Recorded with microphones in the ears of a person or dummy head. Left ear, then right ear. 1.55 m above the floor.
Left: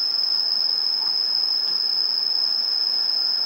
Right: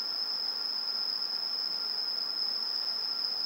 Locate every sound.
0.0 s an insect: 50° left (ahead or behind), 1.9 m